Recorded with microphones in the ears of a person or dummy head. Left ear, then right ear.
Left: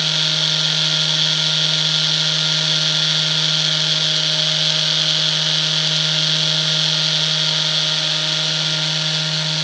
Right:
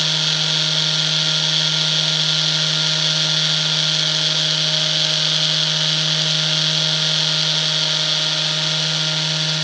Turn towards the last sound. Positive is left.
No sound to turn to.